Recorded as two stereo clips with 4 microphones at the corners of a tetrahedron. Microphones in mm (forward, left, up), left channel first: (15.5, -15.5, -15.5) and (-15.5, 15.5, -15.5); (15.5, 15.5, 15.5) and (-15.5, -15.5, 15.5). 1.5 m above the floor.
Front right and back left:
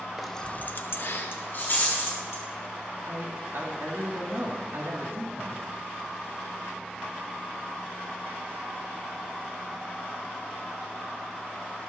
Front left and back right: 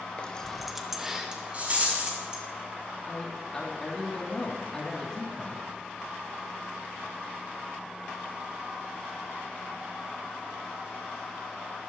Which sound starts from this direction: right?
A rattle, at 1.5 s.